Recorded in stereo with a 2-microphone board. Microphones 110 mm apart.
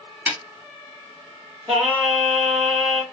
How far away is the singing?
About 1.8 m.